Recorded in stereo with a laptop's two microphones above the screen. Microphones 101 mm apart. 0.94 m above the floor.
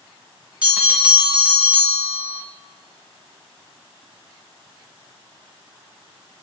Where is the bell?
10° right (ahead or behind), 1.0 m.